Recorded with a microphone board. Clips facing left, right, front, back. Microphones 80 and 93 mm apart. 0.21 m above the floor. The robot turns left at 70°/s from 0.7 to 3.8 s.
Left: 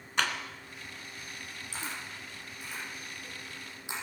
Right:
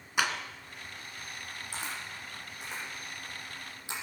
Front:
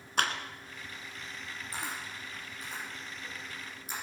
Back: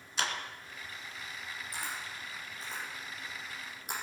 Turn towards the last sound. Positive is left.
turn(degrees=160)